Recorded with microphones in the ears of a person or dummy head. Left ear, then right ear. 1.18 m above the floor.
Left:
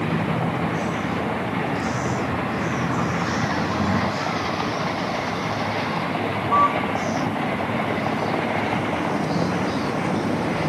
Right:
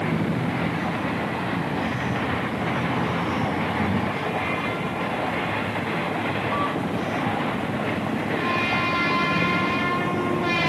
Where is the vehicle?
45° left (ahead or behind); by 10.7 s 50° left (ahead or behind).